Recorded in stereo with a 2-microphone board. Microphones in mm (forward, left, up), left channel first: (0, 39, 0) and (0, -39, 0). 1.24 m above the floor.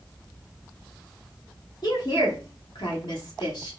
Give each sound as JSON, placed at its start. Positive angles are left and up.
{"t": 1.8, "sound": "a woman speaking", "side_deg": 55, "distance_m": 1.5}